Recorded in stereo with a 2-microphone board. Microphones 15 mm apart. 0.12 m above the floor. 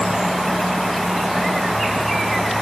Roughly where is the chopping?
No chopping in this recording.